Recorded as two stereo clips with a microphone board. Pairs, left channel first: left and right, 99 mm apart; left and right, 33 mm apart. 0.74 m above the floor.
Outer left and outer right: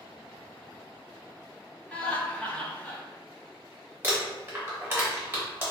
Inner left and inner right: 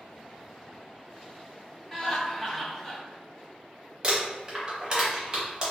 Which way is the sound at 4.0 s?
25° right (ahead or behind).